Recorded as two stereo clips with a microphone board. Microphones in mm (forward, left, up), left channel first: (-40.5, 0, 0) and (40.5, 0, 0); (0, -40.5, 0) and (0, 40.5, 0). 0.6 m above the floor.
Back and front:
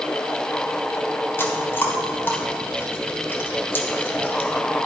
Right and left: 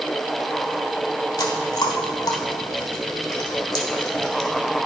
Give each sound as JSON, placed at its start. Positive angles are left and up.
{"t": 1.4, "sound": "chewing", "azimuth_deg": -120, "distance_m": 1.5}